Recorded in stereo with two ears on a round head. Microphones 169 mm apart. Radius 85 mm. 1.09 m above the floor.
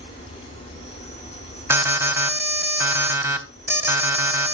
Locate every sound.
0.0 s an insect: 65° right (ahead or behind), 7.5 m
1.7 s an alarm: 15° right (ahead or behind), 1.1 m